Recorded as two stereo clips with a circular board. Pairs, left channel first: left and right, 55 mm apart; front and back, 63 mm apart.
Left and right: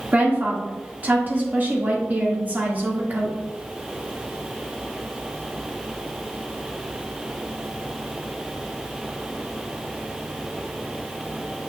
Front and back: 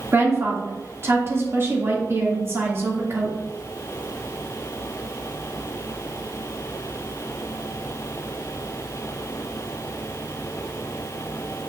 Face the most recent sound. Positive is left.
turn(degrees=-140)